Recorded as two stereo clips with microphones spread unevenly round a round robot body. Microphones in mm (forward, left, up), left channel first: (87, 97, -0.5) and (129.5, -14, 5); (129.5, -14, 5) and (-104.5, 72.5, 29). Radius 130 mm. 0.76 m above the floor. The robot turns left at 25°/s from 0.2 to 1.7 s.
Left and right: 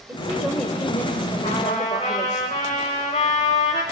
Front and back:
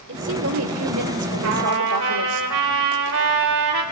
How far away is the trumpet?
About 3.5 m.